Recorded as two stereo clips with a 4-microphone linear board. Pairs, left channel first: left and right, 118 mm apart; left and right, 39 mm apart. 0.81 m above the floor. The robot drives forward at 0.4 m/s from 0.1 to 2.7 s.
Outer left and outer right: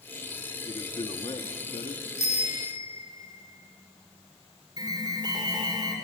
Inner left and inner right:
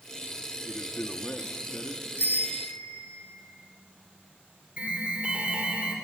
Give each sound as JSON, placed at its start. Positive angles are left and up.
{"t": 0.7, "sound": "a man speaking", "side_deg": 50, "distance_m": 1.5}
{"t": 2.2, "sound": "a bicycle bell", "side_deg": 80, "distance_m": 3.5}
{"t": 4.8, "sound": "an alarm", "side_deg": -35, "distance_m": 3.5}